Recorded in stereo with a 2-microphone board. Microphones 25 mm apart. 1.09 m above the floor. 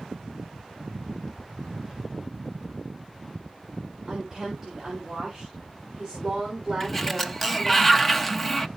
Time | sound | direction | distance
4.1 | a woman speaking | 15° right (ahead or behind) | 3.5 m
6.8 | a sliding door | 5° left (ahead or behind) | 0.8 m